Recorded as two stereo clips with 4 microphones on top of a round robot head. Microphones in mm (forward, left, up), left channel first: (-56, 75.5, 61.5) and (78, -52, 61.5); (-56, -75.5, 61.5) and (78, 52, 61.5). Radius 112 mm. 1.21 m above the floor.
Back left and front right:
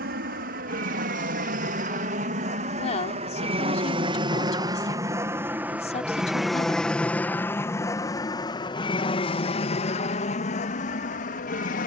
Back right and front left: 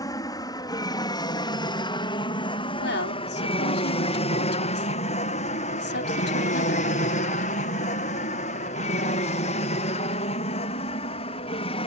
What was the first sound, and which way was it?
An aircraft, 70° right.